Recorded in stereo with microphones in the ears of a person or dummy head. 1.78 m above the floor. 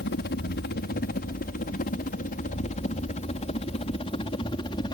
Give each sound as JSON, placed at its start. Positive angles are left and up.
{"t": 0.0, "sound": "a helicopter", "side_deg": 55}